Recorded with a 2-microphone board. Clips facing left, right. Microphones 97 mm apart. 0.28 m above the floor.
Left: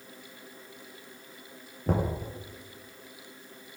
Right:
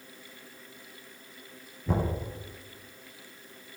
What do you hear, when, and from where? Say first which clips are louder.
1.9 s knocking: left 1 dB; 55° left (ahead or behind), 4 m